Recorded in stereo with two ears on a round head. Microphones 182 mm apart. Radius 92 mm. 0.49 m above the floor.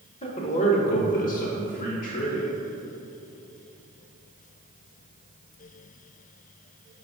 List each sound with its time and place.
0.2 s a man speaking: 30° left (ahead or behind), 0.9 m; by 2.5 s 40° left (ahead or behind), 1.4 m